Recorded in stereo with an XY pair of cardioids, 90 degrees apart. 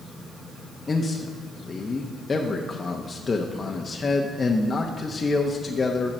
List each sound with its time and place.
0.9 s a man speaking: 35° left, 0.9 m